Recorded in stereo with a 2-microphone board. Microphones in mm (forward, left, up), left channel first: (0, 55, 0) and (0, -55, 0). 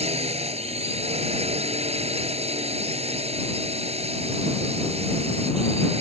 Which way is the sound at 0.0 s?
70° right (ahead or behind).